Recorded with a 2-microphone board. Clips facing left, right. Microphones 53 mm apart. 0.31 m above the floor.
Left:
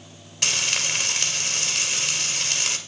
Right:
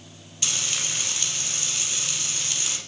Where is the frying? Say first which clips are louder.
Left 5 dB; 80° left, 3.5 m.